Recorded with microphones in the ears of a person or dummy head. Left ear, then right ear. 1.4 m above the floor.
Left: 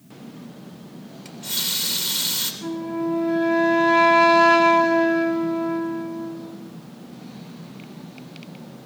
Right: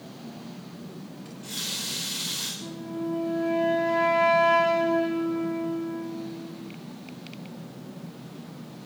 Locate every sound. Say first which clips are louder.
1.2 s a running tap: left 7 dB; 35° left (ahead or behind), 3.5 m
2.6 s a flute: left 7 dB; 60° left (ahead or behind), 2.5 m